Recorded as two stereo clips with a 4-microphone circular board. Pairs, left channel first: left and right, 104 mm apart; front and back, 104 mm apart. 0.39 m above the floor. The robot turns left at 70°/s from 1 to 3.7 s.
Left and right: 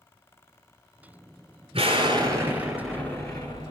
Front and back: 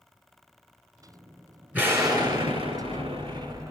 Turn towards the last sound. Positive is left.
turn(degrees=115)